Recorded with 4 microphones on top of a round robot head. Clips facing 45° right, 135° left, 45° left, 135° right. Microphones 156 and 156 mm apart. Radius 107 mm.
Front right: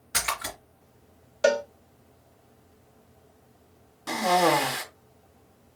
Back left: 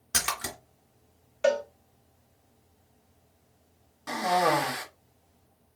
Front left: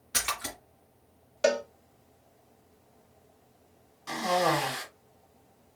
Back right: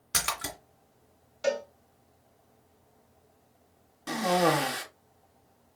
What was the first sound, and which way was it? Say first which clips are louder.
A splash: front right 2 dB, back right 1 dB; straight behind.